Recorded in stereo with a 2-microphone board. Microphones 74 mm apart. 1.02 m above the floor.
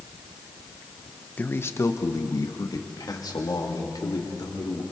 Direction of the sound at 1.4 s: 20° left (ahead or behind).